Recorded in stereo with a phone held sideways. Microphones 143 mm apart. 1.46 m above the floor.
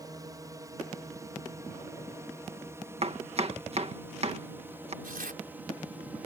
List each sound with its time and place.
0.0 s a drone: 25° right (ahead or behind); by 6.3 s 10° right (ahead or behind)
3.0 s chopping: 50° right (ahead or behind)
5.0 s tearing paper: 90° right